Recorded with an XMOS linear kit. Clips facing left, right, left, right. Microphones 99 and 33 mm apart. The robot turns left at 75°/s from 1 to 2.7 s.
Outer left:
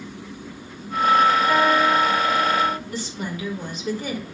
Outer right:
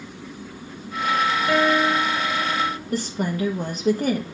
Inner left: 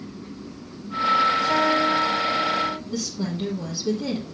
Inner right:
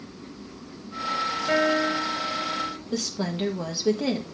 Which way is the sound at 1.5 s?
115° right.